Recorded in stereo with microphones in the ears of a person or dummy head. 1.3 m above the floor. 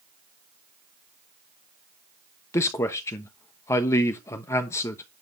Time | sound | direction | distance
2.5 | a man speaking | 15° left (ahead or behind) | 1.0 m